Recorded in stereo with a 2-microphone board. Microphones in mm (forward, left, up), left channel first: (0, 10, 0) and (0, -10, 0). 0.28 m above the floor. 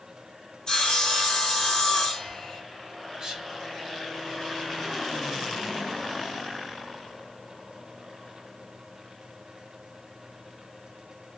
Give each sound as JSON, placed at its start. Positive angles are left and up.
{"t": 0.7, "sound": "sawing", "side_deg": 40, "distance_m": 1.7}
{"t": 3.2, "sound": "whispering", "side_deg": -30, "distance_m": 1.0}